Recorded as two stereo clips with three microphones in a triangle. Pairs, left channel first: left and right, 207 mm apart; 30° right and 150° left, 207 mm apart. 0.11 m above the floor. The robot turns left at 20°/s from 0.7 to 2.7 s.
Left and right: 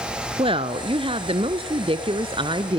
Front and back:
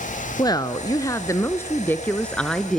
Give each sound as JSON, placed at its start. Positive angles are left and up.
{"t": 0.4, "sound": "a woman speaking", "azimuth_deg": -75, "distance_m": 1.2}